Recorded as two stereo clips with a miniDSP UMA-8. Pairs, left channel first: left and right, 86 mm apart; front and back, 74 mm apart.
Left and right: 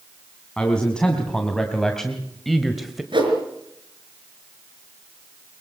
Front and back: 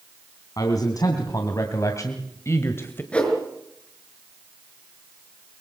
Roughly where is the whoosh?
Right.